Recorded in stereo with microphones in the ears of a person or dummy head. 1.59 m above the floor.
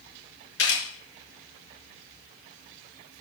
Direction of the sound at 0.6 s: 75° left (ahead or behind).